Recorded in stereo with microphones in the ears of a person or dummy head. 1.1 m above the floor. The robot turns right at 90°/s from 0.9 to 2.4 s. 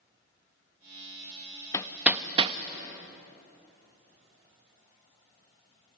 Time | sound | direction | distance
1.7 | hammering | 20° left (ahead or behind) | 0.6 m